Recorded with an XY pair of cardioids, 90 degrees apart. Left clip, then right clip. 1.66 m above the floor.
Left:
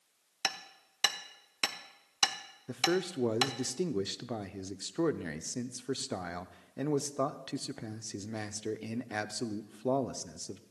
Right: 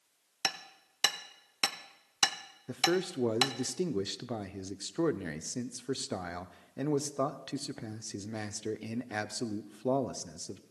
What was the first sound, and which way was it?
Hammering, 25° right.